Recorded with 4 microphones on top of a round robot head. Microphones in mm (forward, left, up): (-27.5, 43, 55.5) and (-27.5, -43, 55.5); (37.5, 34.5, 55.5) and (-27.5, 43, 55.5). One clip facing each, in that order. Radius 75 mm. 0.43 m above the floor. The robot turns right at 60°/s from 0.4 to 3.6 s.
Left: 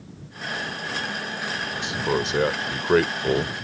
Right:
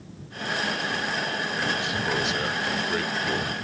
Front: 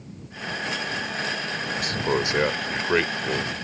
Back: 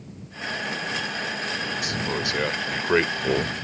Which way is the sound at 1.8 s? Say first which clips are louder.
Left 2 dB, front 3 dB; 20° left.